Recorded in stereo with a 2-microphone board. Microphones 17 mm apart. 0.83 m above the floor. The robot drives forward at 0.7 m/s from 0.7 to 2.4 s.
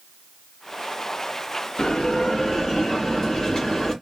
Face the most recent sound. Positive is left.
turn(degrees=30)  # may be behind; listen again after turning